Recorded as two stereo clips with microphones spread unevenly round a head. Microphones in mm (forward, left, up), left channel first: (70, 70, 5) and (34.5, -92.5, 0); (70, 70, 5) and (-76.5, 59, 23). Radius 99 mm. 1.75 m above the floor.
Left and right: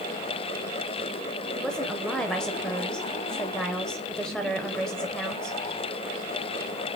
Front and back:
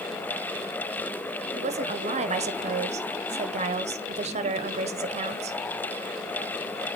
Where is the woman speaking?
165° left, 0.9 m.